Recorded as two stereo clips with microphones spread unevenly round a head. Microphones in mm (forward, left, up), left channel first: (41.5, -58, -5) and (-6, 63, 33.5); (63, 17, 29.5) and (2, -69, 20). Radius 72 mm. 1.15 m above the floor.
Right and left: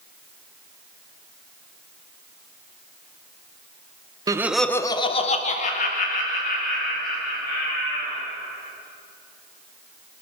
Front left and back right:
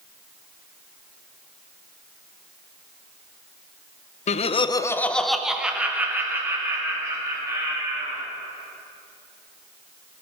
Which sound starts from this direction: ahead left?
Laughter, at 4.3 s.